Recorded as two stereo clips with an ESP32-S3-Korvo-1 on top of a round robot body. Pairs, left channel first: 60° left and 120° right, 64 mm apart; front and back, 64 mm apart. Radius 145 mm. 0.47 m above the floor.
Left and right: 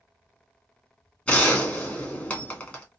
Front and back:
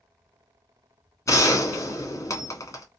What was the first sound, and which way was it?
A gunshot, 5° right.